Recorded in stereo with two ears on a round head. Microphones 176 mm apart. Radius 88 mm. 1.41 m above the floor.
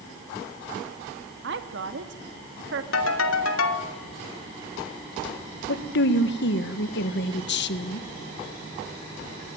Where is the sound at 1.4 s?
60° right (ahead or behind), 2 m.